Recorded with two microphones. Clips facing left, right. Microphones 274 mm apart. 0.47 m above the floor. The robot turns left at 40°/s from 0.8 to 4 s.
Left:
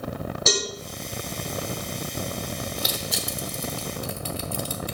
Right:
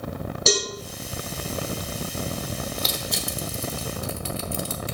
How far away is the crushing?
About 0.8 m.